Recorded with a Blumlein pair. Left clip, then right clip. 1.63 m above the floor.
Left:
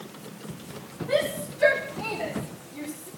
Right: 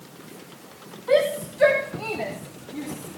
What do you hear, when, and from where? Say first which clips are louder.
1.1 s a shout: right 5 dB; 25° right, 3 m; by 3.1 s 20° right, 5 m